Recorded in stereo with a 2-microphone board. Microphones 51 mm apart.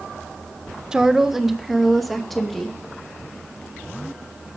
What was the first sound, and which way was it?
A woman speaking, 15° right (ahead or behind).